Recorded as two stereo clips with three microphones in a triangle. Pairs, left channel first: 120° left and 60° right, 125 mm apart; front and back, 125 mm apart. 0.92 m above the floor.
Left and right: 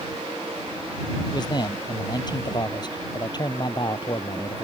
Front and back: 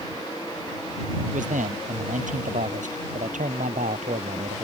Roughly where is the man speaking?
Behind.